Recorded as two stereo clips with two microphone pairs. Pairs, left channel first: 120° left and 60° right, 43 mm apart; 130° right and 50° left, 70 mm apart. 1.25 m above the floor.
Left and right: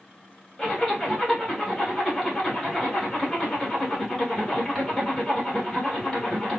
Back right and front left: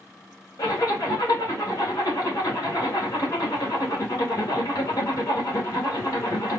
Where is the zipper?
165° right, 1.9 m.